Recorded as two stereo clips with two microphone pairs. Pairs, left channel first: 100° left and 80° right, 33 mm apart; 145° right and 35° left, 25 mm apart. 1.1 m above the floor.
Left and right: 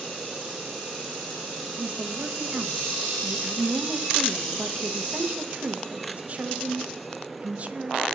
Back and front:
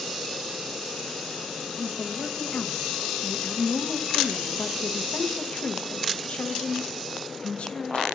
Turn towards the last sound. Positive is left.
turn(degrees=-125)